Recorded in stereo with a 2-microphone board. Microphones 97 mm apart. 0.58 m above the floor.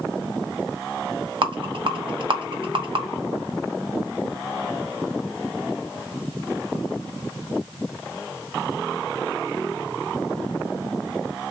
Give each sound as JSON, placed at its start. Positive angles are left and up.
{"t": 1.4, "sound": "a rattle", "side_deg": -55, "distance_m": 0.7}